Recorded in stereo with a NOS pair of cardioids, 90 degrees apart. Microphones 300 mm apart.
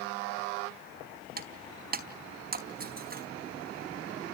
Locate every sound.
1.4 s breaking glass: 30° right, 4 m